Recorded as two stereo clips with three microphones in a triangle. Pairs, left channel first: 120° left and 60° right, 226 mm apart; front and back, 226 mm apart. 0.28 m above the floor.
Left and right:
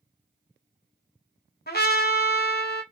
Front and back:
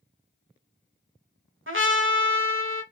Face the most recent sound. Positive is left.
turn(degrees=160)